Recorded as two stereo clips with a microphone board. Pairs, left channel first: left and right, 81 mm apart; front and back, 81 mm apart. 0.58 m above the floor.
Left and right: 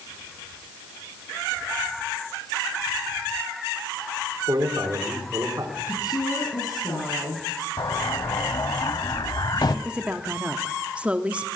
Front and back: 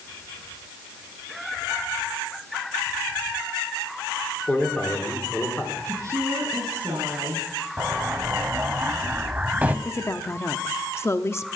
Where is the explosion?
110° left, 0.7 m.